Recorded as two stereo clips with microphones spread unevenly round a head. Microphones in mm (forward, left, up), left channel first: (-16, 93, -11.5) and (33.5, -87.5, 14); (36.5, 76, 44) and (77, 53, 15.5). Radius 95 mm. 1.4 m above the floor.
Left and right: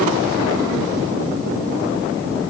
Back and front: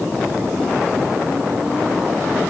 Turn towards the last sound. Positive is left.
No sound to turn to.